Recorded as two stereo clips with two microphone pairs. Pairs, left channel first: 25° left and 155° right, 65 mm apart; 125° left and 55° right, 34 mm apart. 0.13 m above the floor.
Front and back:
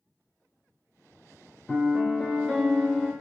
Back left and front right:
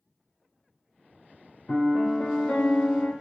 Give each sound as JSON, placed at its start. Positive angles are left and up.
{"t": 1.7, "sound": "a piano", "azimuth_deg": 110, "distance_m": 0.6}